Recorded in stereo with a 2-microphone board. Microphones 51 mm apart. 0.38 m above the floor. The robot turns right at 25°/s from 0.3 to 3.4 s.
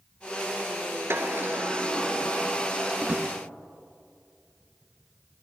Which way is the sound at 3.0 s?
40° right (ahead or behind).